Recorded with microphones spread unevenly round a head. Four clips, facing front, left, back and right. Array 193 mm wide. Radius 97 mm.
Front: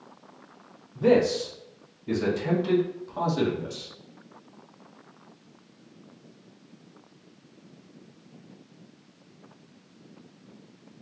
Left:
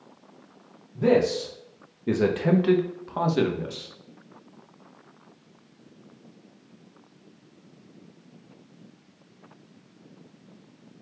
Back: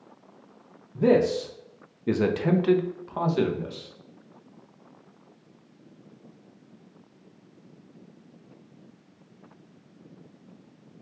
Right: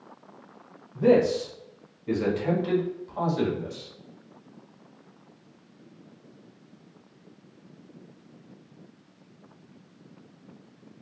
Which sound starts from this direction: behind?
A man speaking, at 0.9 s.